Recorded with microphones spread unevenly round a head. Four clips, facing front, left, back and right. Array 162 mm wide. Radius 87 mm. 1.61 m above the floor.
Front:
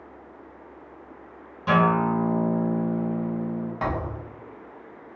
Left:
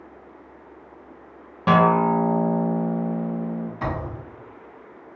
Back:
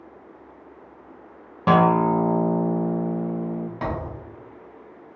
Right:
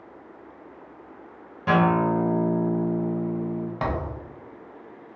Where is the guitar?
155° left, 0.5 m.